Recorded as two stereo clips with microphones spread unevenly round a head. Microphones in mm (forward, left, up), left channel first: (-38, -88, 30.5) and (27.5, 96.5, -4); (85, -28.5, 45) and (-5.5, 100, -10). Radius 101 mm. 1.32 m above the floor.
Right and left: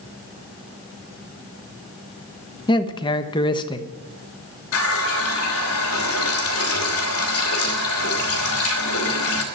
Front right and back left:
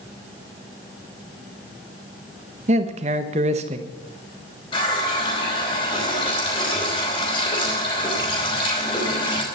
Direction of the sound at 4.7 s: 120° right.